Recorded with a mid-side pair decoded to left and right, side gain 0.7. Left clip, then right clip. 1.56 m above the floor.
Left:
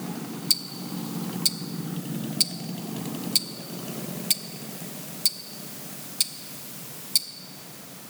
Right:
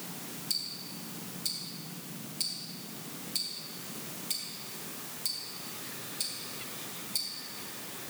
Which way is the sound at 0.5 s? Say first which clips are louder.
Left 8 dB; 45° left.